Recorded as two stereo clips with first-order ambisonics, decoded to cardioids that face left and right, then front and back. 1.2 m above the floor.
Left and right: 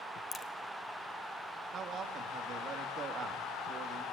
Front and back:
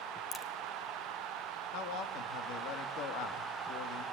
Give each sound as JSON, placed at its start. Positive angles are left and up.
{"t": 0.3, "sound": "a crack", "azimuth_deg": 50, "distance_m": 0.9}
{"t": 1.7, "sound": "a man speaking", "azimuth_deg": -30, "distance_m": 1.8}